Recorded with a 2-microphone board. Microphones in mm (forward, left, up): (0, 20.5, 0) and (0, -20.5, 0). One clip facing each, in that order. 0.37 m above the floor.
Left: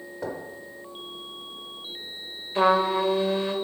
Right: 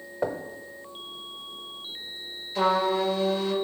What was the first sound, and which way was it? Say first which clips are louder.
Knocking: right 4 dB; 30° right (ahead or behind).